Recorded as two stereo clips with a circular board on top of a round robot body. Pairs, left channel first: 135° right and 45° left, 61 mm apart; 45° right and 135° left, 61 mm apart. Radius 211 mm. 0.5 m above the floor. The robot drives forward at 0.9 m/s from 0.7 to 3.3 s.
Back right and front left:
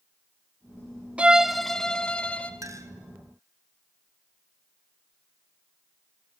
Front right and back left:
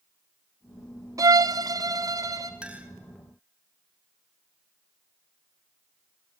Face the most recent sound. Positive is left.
turn(degrees=85)